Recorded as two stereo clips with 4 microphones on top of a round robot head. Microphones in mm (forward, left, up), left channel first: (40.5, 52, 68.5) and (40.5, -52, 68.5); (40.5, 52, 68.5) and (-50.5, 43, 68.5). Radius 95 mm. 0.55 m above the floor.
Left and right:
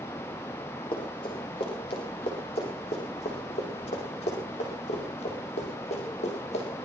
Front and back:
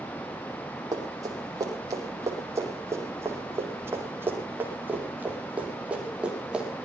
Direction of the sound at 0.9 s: 135° left.